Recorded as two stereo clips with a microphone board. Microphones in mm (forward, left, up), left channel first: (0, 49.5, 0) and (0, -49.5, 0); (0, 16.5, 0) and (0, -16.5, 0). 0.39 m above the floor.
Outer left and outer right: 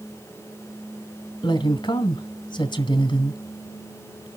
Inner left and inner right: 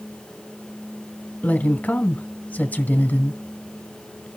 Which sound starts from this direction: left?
A woman speaking, at 1.4 s.